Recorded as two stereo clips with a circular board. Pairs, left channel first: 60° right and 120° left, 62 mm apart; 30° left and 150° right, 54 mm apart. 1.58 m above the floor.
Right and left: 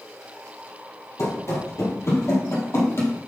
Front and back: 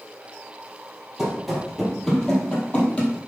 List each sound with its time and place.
1.2 s running footsteps: 70° right, 2.5 m; by 3.1 s 25° right, 2.5 m